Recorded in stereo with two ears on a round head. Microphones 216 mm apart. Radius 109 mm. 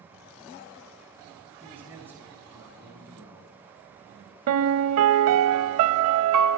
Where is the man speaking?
10° right (ahead or behind), 6 m.